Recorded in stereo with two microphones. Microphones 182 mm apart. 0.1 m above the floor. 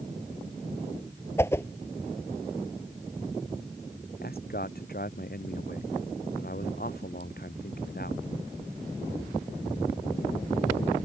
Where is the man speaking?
55° left (ahead or behind).